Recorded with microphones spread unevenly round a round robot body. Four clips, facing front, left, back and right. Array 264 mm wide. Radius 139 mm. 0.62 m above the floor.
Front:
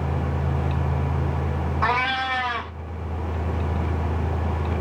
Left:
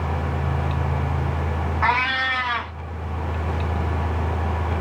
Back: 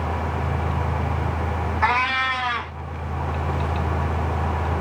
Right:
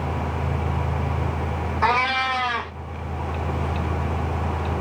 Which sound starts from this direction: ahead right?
A cat meowing, at 1.8 s.